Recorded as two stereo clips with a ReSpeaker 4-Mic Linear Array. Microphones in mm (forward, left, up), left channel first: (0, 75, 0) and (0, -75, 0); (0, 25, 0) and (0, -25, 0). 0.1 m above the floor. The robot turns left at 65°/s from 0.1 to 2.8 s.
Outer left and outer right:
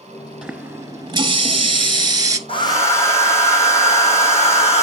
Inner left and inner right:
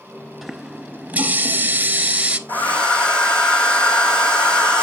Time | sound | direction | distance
0.4 | a running tap | 10° right | 0.9 m
2.5 | a hair dryer | 40° left (ahead or behind) | 2.5 m